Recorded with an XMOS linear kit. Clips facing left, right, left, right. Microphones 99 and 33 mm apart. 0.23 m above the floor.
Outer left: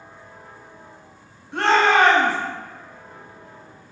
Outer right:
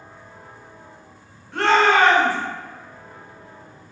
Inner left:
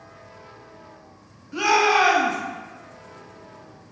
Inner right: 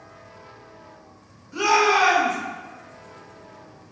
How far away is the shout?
About 1.1 m.